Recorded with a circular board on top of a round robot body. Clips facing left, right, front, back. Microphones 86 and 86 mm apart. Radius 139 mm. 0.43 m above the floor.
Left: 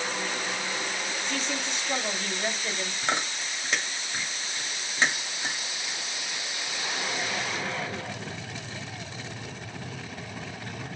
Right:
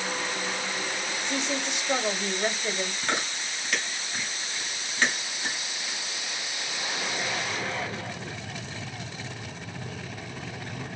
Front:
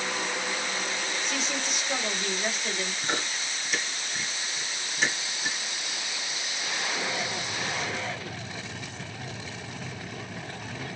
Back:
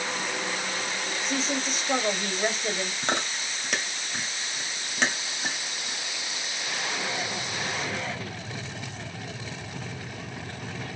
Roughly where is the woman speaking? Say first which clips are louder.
Right 4 dB, back 3 dB; behind right.